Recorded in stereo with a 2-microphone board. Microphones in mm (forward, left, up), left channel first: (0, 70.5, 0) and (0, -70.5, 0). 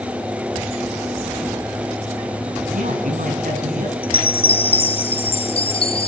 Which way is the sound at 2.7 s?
80° right.